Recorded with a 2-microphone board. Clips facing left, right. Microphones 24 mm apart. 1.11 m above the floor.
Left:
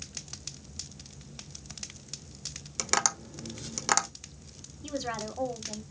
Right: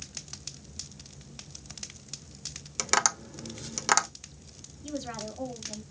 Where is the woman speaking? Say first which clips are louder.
Left 2 dB; 80° left, 2.5 m.